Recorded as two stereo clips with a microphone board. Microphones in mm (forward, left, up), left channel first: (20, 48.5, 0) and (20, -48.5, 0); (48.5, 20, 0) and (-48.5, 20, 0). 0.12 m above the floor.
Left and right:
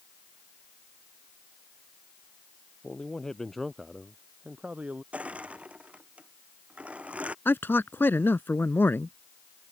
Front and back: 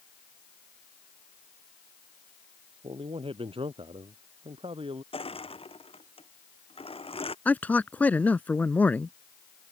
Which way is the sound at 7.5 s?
50° left.